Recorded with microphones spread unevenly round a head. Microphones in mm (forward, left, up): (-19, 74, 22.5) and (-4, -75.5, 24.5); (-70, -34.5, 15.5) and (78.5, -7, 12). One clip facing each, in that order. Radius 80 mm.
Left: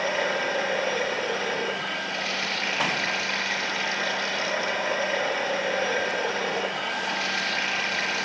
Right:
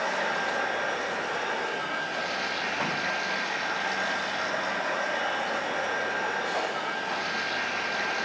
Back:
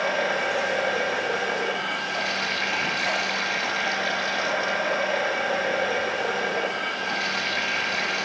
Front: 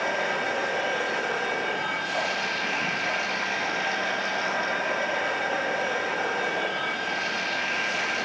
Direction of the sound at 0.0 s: 105° left.